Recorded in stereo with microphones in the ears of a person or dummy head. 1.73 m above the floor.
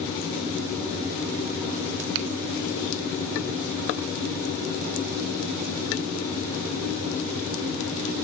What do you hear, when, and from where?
2.1 s a finger snap: 65° right (ahead or behind), 1.2 m